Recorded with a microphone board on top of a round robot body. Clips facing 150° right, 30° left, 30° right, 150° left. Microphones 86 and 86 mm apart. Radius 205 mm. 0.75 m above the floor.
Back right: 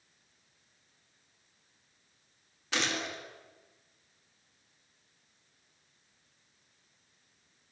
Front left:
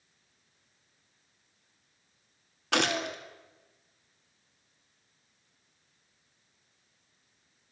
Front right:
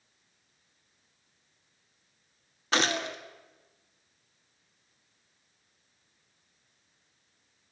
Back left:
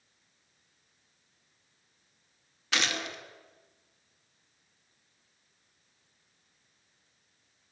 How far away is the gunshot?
About 2.5 m.